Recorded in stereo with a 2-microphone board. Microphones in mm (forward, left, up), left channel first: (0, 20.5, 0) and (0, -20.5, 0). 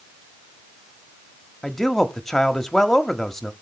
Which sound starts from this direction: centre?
A man speaking, at 1.6 s.